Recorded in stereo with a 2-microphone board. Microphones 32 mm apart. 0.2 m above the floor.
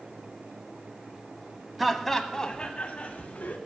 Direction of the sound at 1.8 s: 5° right (ahead or behind).